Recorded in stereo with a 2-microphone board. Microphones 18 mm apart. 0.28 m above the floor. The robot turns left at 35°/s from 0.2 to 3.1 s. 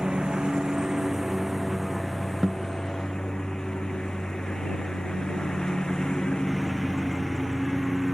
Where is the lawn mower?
130° right; by 8.1 s 130° left.